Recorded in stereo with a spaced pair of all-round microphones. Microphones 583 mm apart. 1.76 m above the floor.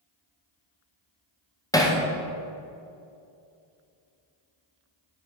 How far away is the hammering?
About 0.7 m.